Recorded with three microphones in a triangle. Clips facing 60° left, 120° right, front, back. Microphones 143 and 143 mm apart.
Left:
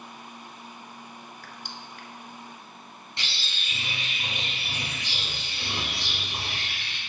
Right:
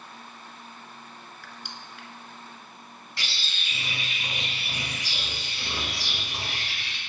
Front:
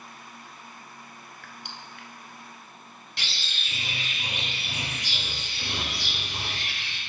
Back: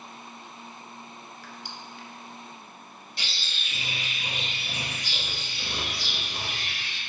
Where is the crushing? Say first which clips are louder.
Left 1 dB, back 1 dB; 20° left, 0.8 m.